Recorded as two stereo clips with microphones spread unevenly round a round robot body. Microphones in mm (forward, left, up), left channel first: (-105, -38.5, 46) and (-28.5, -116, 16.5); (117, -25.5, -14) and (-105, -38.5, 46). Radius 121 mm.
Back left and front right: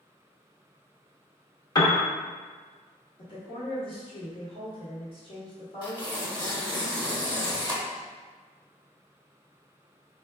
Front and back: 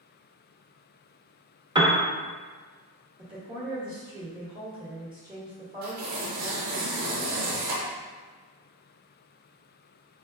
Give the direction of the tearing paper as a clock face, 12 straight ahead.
6 o'clock.